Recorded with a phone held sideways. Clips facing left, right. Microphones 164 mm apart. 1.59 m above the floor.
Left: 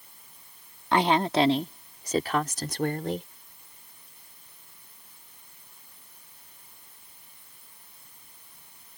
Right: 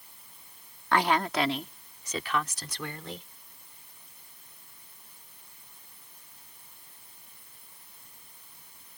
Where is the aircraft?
No aircraft in this recording.